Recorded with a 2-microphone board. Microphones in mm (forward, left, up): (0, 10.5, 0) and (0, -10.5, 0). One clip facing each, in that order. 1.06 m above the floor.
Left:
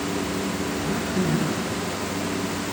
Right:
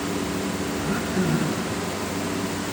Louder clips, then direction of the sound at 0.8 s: Right 1 dB; 80° right.